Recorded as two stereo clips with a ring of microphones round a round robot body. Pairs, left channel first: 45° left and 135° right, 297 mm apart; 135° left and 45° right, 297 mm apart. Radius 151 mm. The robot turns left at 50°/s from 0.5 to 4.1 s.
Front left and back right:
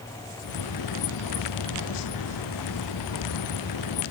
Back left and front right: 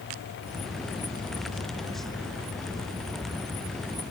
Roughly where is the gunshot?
No gunshot in this recording.